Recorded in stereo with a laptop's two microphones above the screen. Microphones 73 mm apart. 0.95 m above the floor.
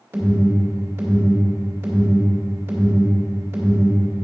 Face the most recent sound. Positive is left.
turn(degrees=-35)  # may be behind; listen again after turning